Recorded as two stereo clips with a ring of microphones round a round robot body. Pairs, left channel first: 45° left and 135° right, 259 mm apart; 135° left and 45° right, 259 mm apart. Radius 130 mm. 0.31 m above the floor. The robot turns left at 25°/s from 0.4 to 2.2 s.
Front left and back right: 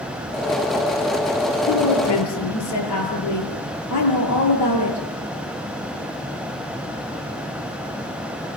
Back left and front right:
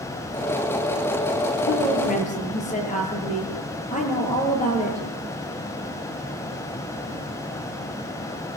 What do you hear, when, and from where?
1.7 s a woman speaking: 85° left, 7.5 m; by 5.0 s 70° left, 7.5 m